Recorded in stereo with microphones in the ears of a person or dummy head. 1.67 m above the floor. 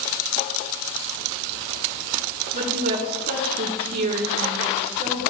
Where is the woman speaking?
45° right (ahead or behind), 2.5 m.